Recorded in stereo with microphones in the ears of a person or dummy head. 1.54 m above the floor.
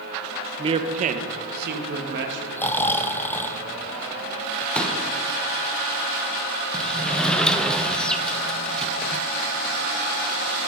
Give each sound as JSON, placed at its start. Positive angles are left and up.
{"t": 0.6, "sound": "a man speaking", "side_deg": -25, "distance_m": 0.9}
{"t": 2.6, "sound": "snoring", "side_deg": 10, "distance_m": 0.5}
{"t": 4.8, "sound": "a pop", "side_deg": 5, "distance_m": 1.2}
{"t": 6.7, "sound": "a sliding door", "side_deg": 5, "distance_m": 0.5}